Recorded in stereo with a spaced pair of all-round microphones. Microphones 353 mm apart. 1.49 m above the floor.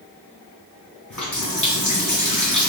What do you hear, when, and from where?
1.1 s a running tap: 55° left (ahead or behind), 1.8 m